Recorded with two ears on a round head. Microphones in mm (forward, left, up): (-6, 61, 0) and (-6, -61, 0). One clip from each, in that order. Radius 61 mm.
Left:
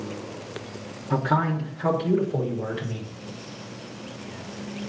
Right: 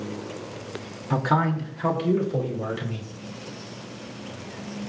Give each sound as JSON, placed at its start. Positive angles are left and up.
{"t": 1.1, "sound": "a man speaking", "side_deg": -45, "distance_m": 3.0}